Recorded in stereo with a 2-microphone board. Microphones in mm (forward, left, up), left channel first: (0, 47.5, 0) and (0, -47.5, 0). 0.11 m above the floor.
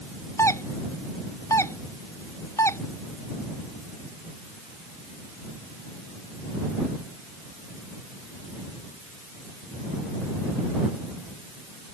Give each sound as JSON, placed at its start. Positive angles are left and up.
{"t": 0.4, "sound": "a doorbell", "side_deg": 30}